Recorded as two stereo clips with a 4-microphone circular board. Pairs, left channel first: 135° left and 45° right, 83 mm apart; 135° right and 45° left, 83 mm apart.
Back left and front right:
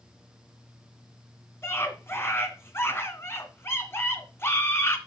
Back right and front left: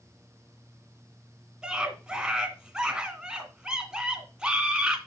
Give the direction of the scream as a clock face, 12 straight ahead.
8 o'clock.